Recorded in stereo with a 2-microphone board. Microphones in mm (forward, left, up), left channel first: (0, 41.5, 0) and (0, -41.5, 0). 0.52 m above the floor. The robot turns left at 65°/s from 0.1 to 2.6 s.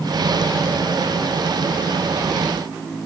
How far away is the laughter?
I don't hear laughter.